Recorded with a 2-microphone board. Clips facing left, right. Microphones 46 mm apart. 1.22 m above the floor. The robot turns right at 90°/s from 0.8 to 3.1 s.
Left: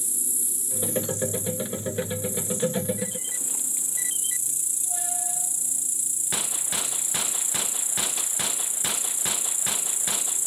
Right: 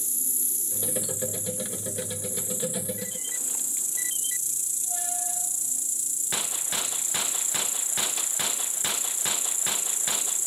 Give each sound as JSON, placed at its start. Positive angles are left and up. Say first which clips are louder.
{"t": 0.0, "sound": "an insect", "louder": "left 2 dB", "azimuth_deg": 175, "distance_m": 1.1}